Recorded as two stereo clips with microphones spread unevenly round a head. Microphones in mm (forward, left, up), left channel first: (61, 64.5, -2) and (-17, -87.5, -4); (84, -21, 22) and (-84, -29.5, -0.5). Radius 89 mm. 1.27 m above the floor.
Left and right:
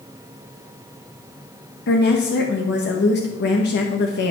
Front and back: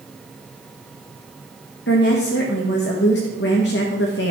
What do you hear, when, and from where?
1.9 s a woman speaking: 35° left, 1.4 m